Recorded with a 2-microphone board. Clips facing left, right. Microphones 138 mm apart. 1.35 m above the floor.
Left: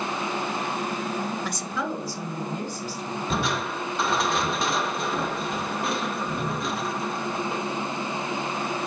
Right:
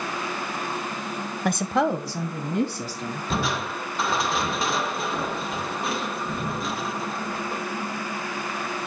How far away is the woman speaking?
About 0.7 m.